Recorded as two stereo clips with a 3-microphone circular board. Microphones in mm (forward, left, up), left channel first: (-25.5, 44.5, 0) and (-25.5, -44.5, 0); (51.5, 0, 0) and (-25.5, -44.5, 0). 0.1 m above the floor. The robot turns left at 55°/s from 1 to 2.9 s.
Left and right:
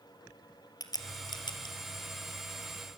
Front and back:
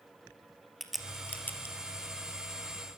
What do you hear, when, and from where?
0.8 s a crack: 120° left, 2.5 m; by 1.8 s 80° left, 2.5 m